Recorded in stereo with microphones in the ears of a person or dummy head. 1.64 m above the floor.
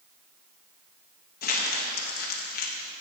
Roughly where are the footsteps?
I don't hear footsteps.